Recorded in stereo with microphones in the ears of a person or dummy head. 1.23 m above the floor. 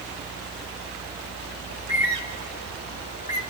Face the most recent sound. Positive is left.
turn(degrees=40)  # may be behind; listen again after turning